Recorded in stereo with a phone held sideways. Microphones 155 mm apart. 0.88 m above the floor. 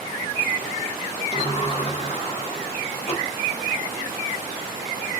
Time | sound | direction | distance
1.3 | a sliding door | 40° left (ahead or behind) | 0.8 m